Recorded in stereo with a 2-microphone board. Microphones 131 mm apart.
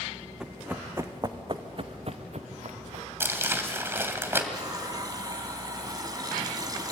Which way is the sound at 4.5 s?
30° right (ahead or behind).